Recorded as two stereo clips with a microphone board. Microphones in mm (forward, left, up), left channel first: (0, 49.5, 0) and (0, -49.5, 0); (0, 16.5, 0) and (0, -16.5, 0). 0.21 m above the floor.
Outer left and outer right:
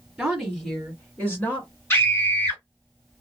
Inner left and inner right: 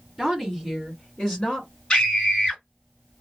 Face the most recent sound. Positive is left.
turn(degrees=25)  # may be behind; listen again after turning